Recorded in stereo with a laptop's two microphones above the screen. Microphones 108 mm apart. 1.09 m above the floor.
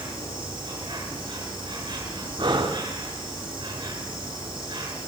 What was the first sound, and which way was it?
An insect, 50° right (ahead or behind).